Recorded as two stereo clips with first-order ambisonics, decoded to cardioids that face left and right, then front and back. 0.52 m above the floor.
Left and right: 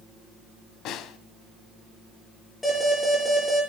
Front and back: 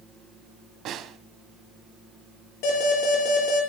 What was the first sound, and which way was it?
A snare drum, 130° left.